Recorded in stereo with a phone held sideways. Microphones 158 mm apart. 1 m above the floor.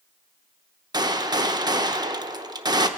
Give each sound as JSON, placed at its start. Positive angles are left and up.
{"t": 0.9, "sound": "a gunshot", "side_deg": -25, "distance_m": 0.7}